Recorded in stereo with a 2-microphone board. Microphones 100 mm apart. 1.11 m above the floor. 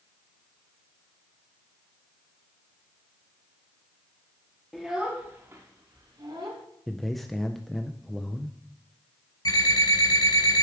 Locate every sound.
4.7 s a child speaking: centre (ahead or behind), 1.0 m; by 6.6 s 50° right (ahead or behind), 1.9 m
6.9 s a man speaking: centre (ahead or behind), 0.6 m
9.4 s an alarm clock: 40° left (ahead or behind), 5 m